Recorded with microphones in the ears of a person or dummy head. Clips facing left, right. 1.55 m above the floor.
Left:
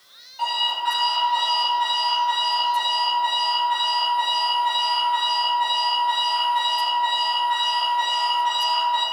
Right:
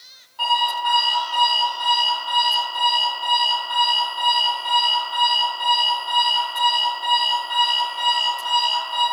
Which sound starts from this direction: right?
An alarm clock, at 0.4 s.